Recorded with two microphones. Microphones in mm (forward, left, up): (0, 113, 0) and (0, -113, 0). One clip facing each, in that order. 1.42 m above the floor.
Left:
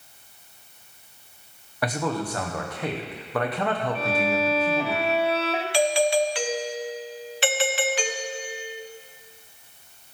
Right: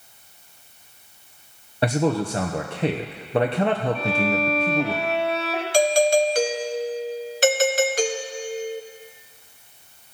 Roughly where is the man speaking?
Right.